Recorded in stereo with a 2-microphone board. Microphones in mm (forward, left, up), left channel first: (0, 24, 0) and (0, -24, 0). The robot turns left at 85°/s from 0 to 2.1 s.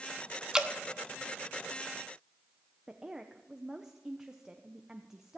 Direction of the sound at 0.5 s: 15° right (ahead or behind).